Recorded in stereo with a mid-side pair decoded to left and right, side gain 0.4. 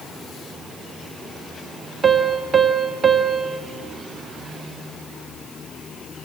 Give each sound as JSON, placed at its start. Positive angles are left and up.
{"t": 2.0, "sound": "a piano", "azimuth_deg": -45, "distance_m": 1.4}